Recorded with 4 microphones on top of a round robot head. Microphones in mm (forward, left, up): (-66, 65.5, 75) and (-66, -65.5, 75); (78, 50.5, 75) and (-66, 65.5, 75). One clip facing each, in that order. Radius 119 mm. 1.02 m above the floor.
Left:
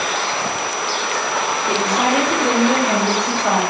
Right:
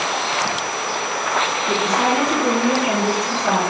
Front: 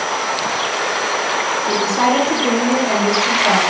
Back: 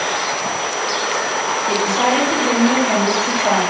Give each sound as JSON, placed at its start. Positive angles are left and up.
{"t": 1.7, "sound": "a woman speaking", "azimuth_deg": 10, "distance_m": 3.0}